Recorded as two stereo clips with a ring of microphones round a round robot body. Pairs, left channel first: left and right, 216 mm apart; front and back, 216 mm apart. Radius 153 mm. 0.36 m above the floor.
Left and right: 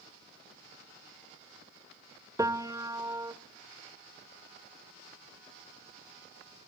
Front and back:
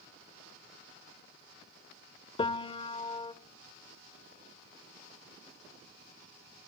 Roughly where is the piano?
Ahead right.